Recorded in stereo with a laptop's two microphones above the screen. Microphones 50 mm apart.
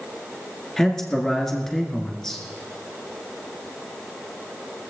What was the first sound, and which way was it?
A man speaking, 5° left (ahead or behind).